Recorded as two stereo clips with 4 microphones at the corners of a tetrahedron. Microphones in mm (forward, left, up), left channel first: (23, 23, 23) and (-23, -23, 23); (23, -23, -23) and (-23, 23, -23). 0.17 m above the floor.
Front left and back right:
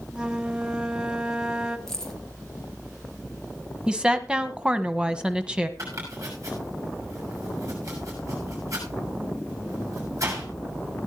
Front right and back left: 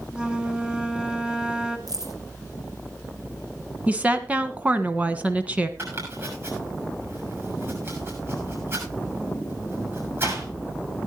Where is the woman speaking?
170° left, 1.2 m.